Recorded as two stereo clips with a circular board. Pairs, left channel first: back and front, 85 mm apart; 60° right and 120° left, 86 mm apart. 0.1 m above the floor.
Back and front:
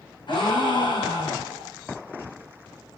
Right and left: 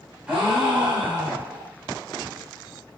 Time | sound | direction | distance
0.3 | a gasp | 160° right | 4.5 m